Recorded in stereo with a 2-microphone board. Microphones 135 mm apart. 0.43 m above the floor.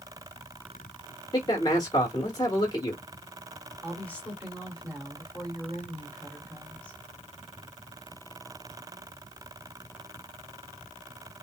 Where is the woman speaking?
10° left (ahead or behind), 2.0 m.